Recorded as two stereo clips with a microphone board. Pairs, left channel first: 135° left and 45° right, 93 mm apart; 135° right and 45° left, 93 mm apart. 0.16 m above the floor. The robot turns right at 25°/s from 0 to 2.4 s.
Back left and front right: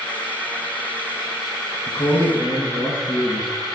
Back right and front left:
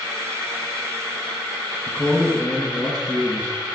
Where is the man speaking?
150° left, 1.7 m; by 3.7 s 165° left, 1.7 m.